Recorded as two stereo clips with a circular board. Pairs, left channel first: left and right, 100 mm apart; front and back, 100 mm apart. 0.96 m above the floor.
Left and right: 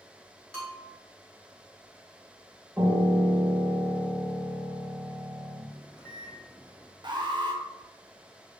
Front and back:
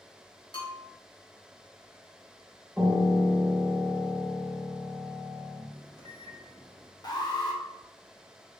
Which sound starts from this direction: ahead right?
An alarm, at 7.0 s.